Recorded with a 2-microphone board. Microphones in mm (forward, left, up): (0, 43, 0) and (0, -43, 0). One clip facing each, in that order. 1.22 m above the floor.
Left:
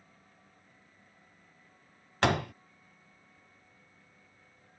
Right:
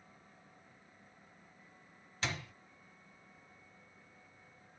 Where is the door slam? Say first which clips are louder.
Left 13 dB; 65° left (ahead or behind).